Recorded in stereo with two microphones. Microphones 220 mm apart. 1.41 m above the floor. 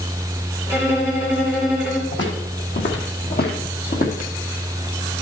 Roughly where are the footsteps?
Left.